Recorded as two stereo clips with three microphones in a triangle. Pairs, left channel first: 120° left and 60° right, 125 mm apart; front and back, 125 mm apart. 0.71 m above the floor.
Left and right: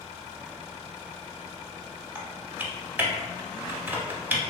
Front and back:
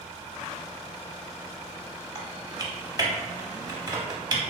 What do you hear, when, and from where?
2.1 s typing on a keyboard: 135° right, 0.6 m